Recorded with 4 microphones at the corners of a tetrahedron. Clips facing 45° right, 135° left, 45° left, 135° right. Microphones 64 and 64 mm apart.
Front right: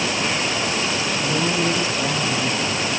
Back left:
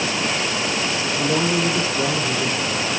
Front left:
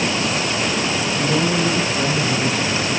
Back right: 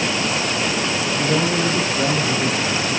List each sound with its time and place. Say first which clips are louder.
1.2 s a man speaking: back left 3 dB, even; 160° left, 7 m